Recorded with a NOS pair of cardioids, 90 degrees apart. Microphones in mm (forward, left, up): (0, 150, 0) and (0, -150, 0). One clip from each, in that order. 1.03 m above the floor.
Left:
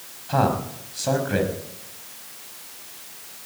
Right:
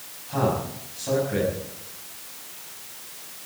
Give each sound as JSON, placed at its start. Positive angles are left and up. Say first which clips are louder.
{"t": 0.3, "sound": "a man speaking", "louder": "left 3 dB", "azimuth_deg": 65, "distance_m": 6.0}